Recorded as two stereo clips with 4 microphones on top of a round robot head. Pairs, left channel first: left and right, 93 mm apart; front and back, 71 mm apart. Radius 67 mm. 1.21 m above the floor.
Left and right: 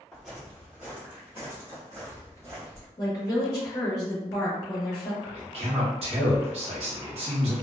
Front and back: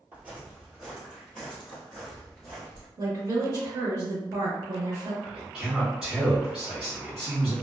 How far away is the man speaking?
About 1.0 m.